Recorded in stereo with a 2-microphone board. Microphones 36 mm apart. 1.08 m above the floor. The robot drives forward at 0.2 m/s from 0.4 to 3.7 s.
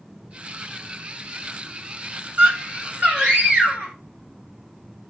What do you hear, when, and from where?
2.4 s a scream: 45° right (ahead or behind), 6.5 m